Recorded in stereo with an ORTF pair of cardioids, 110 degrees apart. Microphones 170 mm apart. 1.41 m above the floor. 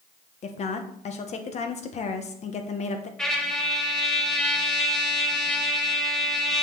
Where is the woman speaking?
40° left, 1.4 m.